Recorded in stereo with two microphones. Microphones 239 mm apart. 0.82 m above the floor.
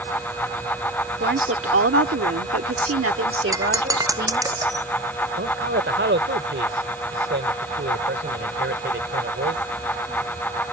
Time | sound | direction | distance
1.2 | a woman speaking | 50° right (ahead or behind) | ?
3.5 | breaking glass | 15° right (ahead or behind) | ?
5.4 | a man speaking | 50° right (ahead or behind) | ?